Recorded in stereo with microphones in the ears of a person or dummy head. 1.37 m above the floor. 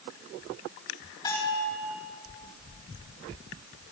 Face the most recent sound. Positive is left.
turn(degrees=25)  # may be behind; listen again after turning